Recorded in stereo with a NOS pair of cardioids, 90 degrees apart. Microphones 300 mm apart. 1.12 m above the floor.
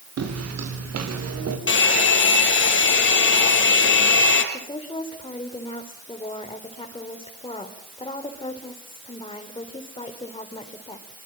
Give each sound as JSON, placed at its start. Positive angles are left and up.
{"t": 0.2, "sound": "footsteps", "azimuth_deg": -55, "distance_m": 7.0}
{"t": 1.7, "sound": "a hair dryer", "azimuth_deg": 40, "distance_m": 5.0}
{"t": 4.5, "sound": "a woman speaking", "azimuth_deg": 15, "distance_m": 4.0}